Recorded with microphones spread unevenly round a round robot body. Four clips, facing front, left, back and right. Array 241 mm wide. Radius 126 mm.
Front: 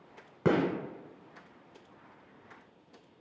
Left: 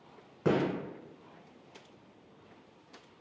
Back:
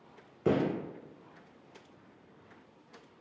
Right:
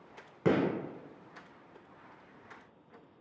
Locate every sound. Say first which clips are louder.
0.5 s a gunshot: even, front 1 dB; 15° right, 0.9 m